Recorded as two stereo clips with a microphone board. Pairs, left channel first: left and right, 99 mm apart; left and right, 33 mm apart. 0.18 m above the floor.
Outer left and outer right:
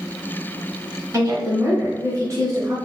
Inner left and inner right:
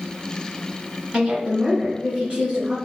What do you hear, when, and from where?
1.1 s a woman speaking: 35° right (ahead or behind), 1.1 m